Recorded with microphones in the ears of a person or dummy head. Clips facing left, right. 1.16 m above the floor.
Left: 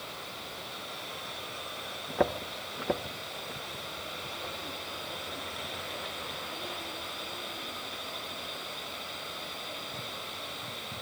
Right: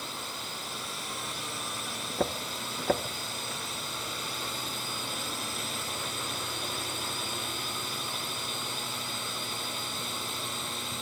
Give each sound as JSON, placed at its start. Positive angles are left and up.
{"t": 0.0, "sound": "a drone", "side_deg": -55}